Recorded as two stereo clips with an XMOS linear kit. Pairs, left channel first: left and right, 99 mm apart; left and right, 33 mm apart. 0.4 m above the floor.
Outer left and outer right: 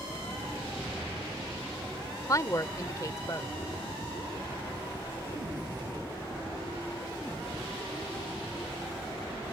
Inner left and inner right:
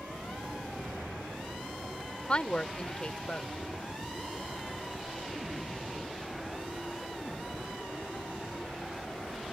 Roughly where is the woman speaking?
Left.